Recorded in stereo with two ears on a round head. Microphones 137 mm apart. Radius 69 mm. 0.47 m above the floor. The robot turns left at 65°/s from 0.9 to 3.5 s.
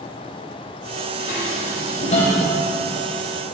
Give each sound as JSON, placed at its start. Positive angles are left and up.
{"t": 1.2, "sound": "dishes clattering", "side_deg": 65, "distance_m": 1.3}